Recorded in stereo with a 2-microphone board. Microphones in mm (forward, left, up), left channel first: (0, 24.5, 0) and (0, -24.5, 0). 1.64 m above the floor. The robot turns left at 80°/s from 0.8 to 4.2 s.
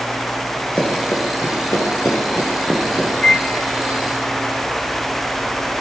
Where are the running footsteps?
30° left (ahead or behind), 6.5 m; by 3.1 s 30° right (ahead or behind), 7.5 m.